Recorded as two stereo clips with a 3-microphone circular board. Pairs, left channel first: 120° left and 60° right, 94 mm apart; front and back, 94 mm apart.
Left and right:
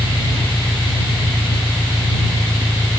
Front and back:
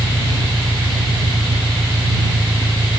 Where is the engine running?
Straight behind.